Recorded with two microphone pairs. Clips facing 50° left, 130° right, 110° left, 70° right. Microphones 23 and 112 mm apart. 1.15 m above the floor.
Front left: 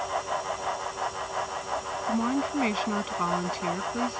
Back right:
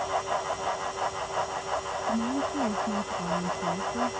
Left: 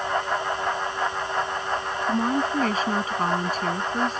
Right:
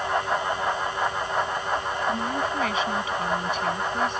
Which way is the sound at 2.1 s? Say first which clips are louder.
Front left 2 dB, left 6 dB; 60° left.